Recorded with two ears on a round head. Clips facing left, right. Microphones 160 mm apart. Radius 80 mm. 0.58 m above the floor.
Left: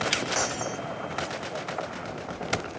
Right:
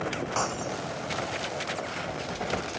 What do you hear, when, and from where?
0.3 s breaking glass: 15° left (ahead or behind)